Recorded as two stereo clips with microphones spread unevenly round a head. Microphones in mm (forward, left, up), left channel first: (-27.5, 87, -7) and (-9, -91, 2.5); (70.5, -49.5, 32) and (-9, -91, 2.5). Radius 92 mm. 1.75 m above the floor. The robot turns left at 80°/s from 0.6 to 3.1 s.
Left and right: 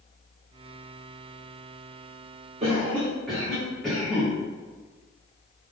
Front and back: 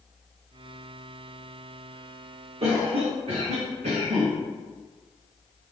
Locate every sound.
2.6 s a cough: 135° right, 0.8 m; by 4.3 s 175° right, 0.8 m